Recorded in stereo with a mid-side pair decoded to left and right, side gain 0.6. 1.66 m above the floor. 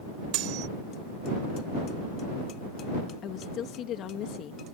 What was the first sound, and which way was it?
Cutlery clinking, 70° right.